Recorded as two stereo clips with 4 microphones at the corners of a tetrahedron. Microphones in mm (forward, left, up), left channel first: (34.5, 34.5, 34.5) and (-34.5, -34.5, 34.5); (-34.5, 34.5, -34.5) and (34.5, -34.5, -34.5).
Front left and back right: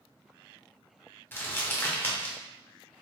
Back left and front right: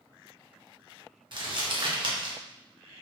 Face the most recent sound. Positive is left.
turn(degrees=-25)